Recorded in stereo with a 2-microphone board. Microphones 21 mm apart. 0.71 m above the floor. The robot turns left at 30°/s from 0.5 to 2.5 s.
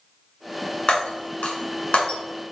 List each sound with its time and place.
0.9 s breaking glass: 60° left (ahead or behind), 1.7 m; by 2.2 s 75° left (ahead or behind), 1.7 m